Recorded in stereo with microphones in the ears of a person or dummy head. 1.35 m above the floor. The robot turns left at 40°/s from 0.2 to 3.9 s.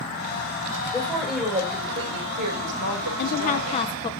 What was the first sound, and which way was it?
A woman speaking, 15° left.